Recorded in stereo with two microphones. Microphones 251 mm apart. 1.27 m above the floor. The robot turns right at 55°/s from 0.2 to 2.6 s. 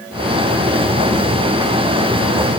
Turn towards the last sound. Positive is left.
No sound to turn to.